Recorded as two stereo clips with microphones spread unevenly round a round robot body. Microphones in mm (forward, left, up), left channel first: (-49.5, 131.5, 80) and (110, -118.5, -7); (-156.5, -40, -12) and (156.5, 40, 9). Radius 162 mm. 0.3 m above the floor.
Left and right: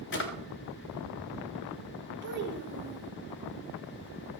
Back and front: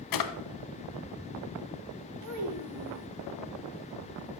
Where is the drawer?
Straight behind, 1.1 m.